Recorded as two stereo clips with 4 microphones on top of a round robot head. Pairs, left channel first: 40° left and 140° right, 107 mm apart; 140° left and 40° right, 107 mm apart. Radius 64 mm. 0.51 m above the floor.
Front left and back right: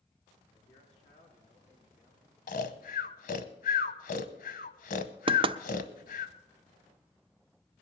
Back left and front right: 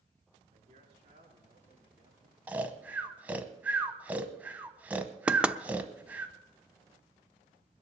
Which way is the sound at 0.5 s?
Straight ahead.